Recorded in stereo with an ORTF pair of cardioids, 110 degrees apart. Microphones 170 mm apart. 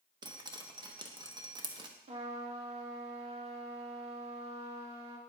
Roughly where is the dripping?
Ahead right.